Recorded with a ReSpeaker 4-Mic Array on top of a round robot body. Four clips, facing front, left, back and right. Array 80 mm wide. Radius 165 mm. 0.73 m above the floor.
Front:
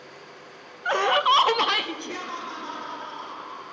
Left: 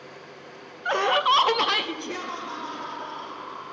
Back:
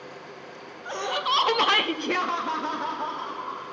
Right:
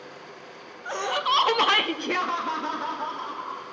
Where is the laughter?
35° left, 1.1 m; by 3.6 s 140° right, 2.5 m.